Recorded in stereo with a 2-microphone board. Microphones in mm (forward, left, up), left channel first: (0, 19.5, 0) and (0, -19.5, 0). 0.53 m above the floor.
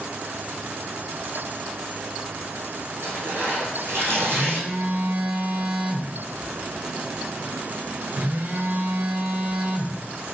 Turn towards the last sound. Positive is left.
turn(degrees=-55)  # may be behind; listen again after turning